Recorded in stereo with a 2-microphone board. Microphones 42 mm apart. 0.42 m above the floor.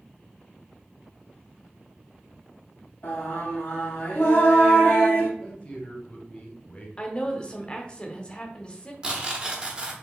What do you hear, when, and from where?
3.0 s singing: 50° left (ahead or behind), 2.5 m
5.4 s a man speaking: 35° left (ahead or behind), 1.3 m
7.0 s a woman speaking: 25° left (ahead or behind), 0.8 m
9.0 s tearing paper: 25° right (ahead or behind), 1.0 m